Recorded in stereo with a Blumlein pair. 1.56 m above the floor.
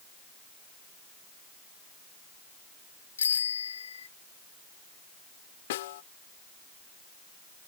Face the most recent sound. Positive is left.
turn(degrees=55)